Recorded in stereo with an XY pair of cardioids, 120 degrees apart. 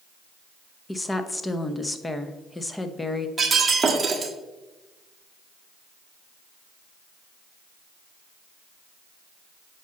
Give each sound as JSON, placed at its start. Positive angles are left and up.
{"t": 0.9, "sound": "a woman speaking", "azimuth_deg": 15, "distance_m": 0.8}
{"t": 3.4, "sound": "breaking glass", "azimuth_deg": -25, "distance_m": 1.4}